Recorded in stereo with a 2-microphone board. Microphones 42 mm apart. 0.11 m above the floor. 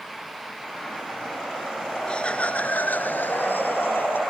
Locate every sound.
2.1 s laughter: 20° left (ahead or behind); by 4.2 s 50° left (ahead or behind)